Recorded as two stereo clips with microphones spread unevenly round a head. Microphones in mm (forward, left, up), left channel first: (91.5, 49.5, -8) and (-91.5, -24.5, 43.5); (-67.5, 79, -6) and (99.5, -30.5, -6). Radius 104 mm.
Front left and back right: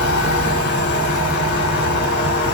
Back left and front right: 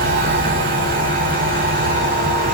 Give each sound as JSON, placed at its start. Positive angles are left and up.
{"t": 0.0, "sound": "a machine running", "azimuth_deg": -15, "distance_m": 1.3}